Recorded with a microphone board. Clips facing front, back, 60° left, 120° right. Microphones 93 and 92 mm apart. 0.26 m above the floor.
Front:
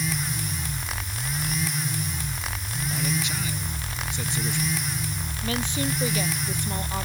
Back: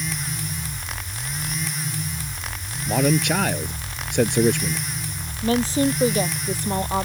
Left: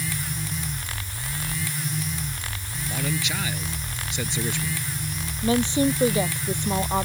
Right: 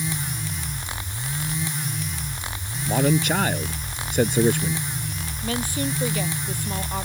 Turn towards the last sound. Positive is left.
turn(degrees=125)